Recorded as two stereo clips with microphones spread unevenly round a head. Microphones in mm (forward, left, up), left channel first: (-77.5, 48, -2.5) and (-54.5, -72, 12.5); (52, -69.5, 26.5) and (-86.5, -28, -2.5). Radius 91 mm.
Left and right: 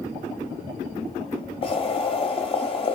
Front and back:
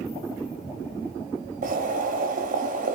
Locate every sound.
1.6 s boiling: 140° left, 0.8 m